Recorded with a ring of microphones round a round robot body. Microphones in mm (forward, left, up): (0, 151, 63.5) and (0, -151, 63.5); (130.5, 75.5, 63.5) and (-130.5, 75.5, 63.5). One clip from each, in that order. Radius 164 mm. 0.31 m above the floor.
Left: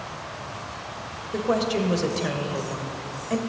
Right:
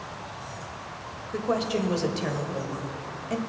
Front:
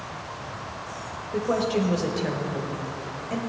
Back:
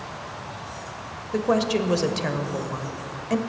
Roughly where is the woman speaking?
Behind.